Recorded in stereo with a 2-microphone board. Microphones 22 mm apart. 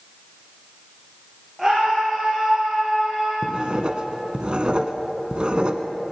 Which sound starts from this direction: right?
Writing, at 3.4 s.